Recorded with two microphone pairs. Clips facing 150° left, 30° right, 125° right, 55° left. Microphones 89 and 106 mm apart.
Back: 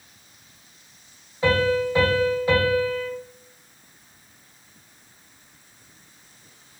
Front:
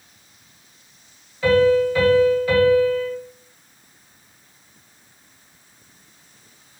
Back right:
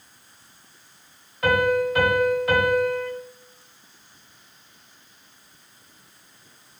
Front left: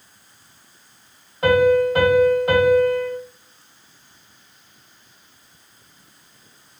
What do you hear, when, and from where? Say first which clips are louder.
1.4 s a piano: front 6 dB, front left 6 dB; 100° left, 1.5 m